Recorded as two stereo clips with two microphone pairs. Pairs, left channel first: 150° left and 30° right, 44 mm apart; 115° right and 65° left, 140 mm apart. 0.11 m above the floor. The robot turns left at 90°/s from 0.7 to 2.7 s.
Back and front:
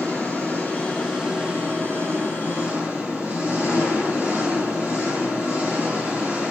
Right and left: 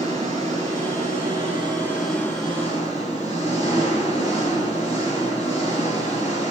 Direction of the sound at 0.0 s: 100° left.